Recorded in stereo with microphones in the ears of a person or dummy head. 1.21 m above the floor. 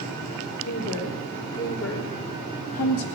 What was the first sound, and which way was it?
A woman speaking, 80° left.